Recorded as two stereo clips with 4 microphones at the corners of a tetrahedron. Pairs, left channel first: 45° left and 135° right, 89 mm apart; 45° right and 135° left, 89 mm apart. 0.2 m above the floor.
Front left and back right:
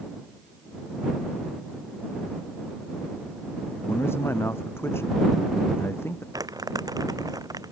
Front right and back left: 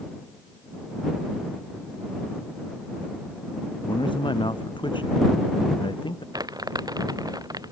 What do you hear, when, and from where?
3.9 s a man speaking: 15° right
6.3 s crumpling: straight behind